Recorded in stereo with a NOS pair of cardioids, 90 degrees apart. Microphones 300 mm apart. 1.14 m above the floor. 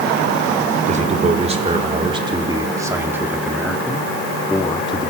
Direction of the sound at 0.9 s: 25° right.